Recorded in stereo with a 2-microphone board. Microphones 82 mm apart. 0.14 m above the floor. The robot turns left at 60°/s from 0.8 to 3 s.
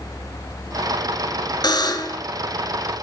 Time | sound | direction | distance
1.6 | a buzzer | 90° left | 0.9 m